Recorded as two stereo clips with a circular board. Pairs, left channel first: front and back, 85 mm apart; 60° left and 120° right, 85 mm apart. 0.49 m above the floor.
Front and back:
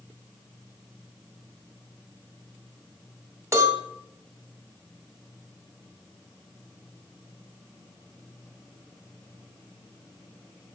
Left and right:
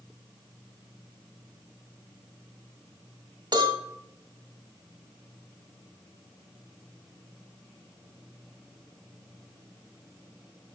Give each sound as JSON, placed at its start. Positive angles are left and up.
{"t": 3.5, "sound": "a cowbell", "azimuth_deg": -130, "distance_m": 0.9}